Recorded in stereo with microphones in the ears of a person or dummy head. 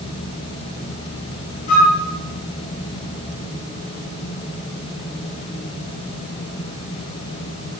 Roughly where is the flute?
Left.